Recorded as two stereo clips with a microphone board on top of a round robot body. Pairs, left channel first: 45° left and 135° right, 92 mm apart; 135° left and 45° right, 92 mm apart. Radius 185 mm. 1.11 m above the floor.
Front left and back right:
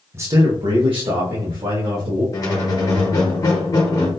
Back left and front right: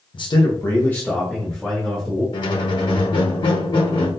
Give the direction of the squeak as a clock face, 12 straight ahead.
9 o'clock.